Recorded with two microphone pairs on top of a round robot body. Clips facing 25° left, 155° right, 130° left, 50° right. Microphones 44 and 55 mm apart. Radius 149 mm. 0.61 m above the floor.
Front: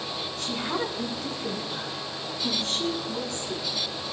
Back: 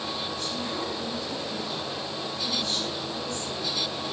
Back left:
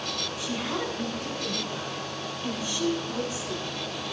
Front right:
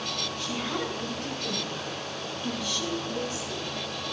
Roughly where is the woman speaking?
Ahead left.